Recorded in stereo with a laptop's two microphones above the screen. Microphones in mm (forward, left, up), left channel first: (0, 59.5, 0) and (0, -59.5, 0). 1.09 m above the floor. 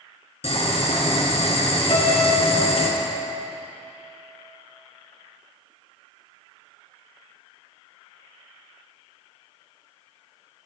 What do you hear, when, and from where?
0.4 s boiling: 60° left (ahead or behind), 2.0 m
1.9 s a piano: 60° left (ahead or behind), 3.5 m